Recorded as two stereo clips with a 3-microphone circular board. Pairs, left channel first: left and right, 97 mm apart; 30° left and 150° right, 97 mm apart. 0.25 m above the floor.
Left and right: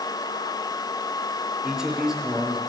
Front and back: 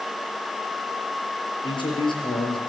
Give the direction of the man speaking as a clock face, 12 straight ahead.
12 o'clock.